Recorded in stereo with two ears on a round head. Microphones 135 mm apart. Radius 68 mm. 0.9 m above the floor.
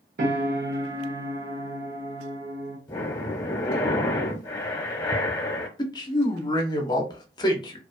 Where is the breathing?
25° left (ahead or behind), 0.6 m.